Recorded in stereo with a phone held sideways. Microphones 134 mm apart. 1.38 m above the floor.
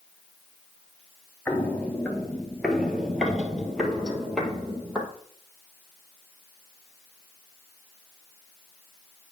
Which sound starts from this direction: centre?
Footsteps, at 1.5 s.